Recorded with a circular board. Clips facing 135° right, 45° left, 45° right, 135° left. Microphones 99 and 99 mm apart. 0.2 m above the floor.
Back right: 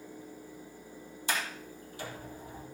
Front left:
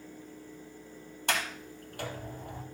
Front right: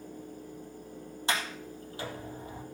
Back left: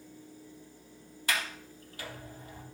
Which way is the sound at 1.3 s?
20° left.